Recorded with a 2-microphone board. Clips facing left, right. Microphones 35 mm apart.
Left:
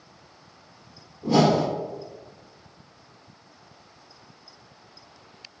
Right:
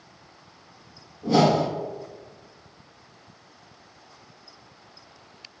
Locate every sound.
1.2 s a whoosh: 5° left (ahead or behind), 1.2 m